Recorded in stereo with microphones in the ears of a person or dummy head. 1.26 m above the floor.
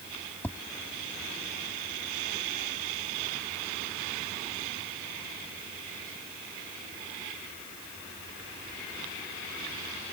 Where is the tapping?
10° left (ahead or behind).